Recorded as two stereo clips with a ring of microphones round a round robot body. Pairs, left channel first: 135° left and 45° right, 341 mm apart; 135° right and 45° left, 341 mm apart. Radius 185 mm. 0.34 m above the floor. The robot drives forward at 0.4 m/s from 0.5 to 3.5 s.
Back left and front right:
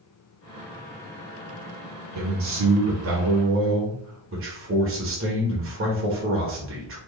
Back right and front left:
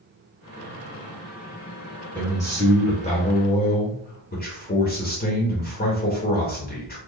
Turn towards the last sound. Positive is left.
turn(degrees=-80)